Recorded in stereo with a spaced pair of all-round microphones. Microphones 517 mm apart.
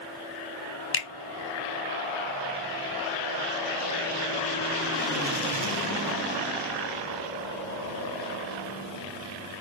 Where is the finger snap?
25° left (ahead or behind), 0.5 m.